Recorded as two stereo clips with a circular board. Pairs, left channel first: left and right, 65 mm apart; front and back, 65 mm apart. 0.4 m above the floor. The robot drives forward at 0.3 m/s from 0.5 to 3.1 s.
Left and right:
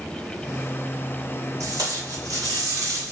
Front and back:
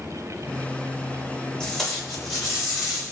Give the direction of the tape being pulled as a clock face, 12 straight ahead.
3 o'clock.